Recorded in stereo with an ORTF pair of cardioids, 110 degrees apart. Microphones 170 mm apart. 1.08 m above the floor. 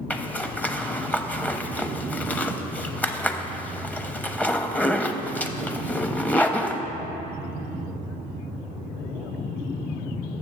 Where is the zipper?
10° left, 0.6 m.